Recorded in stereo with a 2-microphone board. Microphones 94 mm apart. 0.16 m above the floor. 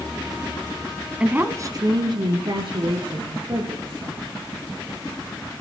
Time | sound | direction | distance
1.2 | a woman speaking | 10° right (ahead or behind) | 1.0 m